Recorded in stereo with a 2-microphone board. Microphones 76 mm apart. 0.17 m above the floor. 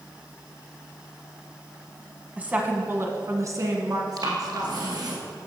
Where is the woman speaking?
20° right (ahead or behind), 1.0 m; by 5.2 s 60° right (ahead or behind), 2 m.